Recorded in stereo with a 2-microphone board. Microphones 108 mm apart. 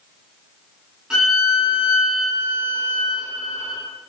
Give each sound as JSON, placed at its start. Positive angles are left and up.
{"t": 1.1, "sound": "a violin", "side_deg": -5, "distance_m": 1.5}